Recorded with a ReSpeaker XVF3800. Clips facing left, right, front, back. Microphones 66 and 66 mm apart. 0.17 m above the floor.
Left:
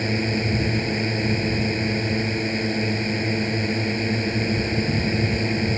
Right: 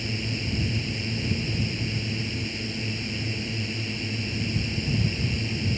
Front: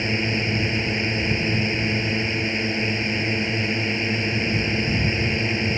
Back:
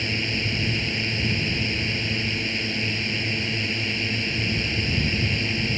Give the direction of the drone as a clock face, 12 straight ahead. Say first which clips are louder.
Left 8 dB, front 4 dB; 10 o'clock.